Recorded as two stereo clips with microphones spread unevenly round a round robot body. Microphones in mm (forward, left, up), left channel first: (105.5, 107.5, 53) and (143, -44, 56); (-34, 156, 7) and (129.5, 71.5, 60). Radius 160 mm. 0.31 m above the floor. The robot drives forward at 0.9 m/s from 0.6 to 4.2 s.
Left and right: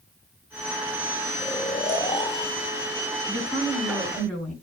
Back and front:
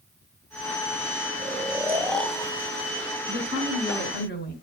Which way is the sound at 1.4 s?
40° left.